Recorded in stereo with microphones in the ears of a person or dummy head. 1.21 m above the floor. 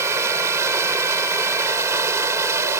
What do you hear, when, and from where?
0.0 s running water: 20° right (ahead or behind)